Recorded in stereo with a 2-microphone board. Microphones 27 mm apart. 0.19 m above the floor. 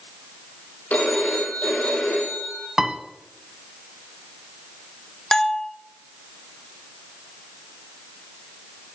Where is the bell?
20° left (ahead or behind), 0.8 m.